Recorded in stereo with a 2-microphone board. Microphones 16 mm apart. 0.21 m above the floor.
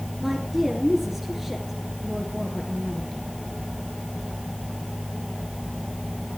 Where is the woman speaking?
20° right (ahead or behind), 3 m.